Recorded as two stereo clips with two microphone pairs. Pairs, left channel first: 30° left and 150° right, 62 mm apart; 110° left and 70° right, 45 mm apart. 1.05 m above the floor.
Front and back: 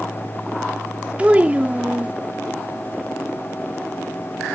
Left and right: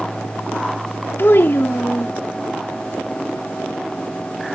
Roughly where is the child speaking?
Behind left.